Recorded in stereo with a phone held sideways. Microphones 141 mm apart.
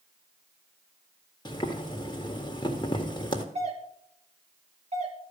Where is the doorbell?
50° right (ahead or behind), 2.5 m.